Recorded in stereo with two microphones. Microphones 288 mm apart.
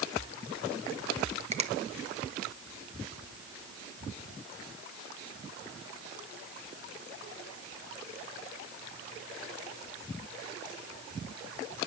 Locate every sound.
1.5 s a finger snap: 20° right (ahead or behind), 1.1 m